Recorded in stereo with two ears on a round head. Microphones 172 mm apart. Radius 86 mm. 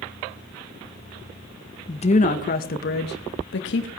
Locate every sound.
1.9 s a woman speaking: 30° left (ahead or behind), 1.4 m; by 3.9 s 70° left (ahead or behind), 2.5 m